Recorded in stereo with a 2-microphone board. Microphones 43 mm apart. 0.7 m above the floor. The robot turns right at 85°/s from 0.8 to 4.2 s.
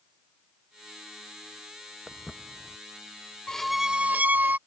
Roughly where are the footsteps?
Centre.